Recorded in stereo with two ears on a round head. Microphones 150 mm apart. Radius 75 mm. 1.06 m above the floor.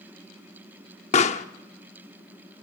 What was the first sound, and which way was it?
A pop, 40° left (ahead or behind).